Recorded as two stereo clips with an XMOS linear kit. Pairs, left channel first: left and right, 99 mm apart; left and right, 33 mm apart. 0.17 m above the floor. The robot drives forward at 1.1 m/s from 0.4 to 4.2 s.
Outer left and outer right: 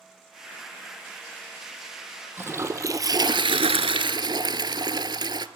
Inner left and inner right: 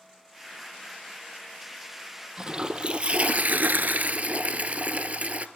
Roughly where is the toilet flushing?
Right.